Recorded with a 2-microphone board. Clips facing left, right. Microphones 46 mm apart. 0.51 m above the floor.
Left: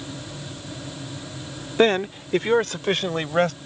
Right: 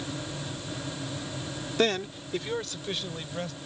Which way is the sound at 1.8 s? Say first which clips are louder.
Left 8 dB; 30° left (ahead or behind).